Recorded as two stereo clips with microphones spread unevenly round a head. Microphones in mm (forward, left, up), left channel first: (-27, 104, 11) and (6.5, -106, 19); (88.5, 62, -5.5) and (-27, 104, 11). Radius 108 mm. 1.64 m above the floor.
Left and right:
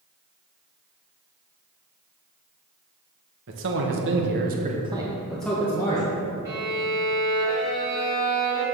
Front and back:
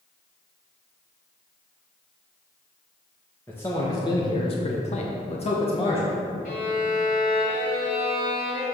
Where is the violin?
Straight ahead, 2.5 m.